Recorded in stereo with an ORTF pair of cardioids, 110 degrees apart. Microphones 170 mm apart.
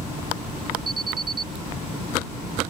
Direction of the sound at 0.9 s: 30° right.